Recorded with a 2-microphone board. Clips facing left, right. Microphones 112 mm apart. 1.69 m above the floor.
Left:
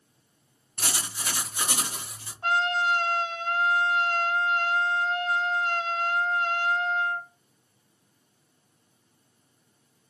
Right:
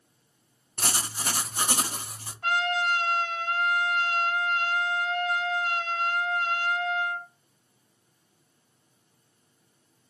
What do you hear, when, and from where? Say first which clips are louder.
0.8 s writing: right 2 dB; 40° right (ahead or behind), 0.5 m
2.4 s a trumpet: left 1 dB; 25° left (ahead or behind), 1.8 m